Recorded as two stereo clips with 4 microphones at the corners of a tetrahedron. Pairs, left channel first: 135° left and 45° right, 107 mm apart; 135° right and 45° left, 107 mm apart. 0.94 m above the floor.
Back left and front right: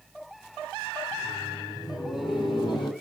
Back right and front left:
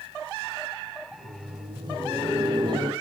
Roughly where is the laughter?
Left.